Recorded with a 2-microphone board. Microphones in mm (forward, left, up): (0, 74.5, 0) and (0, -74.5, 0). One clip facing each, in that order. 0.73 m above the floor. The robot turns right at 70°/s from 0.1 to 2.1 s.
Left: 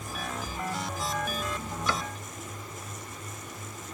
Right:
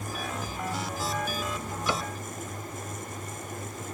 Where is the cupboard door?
20° right (ahead or behind); by 2.1 s 35° right (ahead or behind).